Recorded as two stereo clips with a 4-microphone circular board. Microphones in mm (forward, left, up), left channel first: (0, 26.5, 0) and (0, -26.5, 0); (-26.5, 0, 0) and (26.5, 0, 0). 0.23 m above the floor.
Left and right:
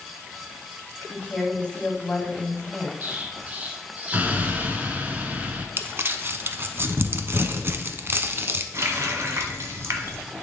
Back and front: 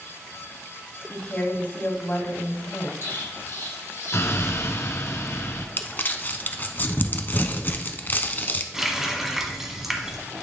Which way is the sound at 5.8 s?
130° right.